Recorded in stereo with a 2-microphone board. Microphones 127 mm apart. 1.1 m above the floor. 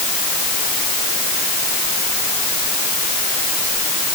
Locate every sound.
Only background noise.